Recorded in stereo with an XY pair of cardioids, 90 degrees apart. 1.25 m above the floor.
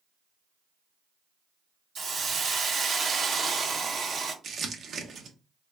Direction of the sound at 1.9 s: 60° right.